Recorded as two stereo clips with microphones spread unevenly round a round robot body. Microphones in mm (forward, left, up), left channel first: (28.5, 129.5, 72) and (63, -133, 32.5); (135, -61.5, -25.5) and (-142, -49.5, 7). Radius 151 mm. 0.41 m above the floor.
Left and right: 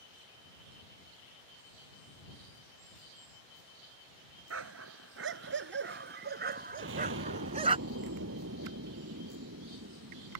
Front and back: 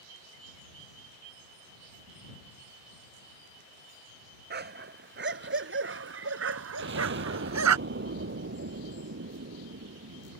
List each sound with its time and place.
4.5 s a dog barking: 130° right; by 7.8 s 155° right
6.8 s an explosion: 135° right